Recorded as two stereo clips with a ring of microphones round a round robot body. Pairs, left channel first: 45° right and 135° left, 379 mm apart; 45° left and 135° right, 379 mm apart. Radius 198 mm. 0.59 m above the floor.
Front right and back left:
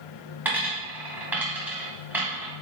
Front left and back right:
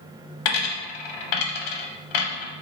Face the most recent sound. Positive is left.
turn(degrees=50)